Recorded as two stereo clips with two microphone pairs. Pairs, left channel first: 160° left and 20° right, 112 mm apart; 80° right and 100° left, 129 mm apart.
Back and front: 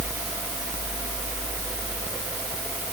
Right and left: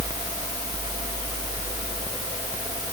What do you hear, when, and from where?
Only background noise.